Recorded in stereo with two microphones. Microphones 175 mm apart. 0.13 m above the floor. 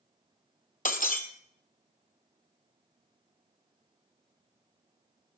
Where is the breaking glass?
50° left (ahead or behind), 1.3 m.